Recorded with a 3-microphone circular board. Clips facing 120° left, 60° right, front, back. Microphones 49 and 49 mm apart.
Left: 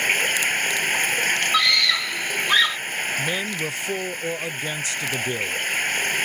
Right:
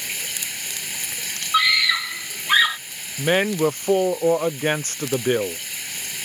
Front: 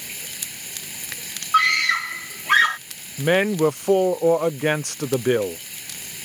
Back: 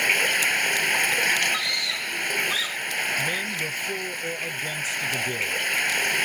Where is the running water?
160° left.